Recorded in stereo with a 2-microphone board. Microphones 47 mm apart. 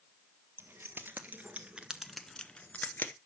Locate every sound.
0.6 s keys jangling: 55° right (ahead or behind), 1.5 m; by 3.1 s 45° left (ahead or behind), 1.1 m